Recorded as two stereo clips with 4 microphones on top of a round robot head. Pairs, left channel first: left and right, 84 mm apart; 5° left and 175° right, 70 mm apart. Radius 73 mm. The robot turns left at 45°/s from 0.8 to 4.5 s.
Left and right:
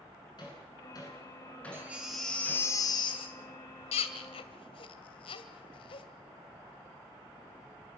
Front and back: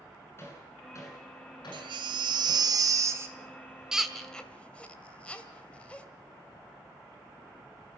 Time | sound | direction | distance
0.4 | hammering | 55° left | 9.5 m
1.7 | a baby crying | 160° right | 2 m